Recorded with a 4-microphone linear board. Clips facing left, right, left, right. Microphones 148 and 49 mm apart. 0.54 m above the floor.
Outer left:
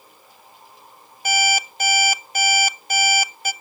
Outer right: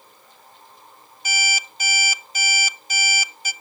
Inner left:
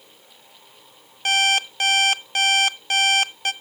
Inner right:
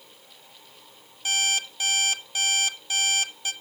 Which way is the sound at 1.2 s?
55° left (ahead or behind).